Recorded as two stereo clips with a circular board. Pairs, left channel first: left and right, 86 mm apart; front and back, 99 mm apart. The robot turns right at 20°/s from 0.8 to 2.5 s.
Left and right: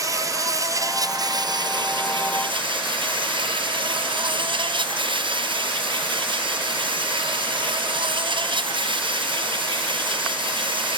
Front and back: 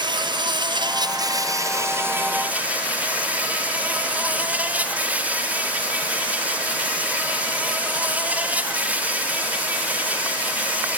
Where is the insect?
140° right; by 11.0 s 105° right.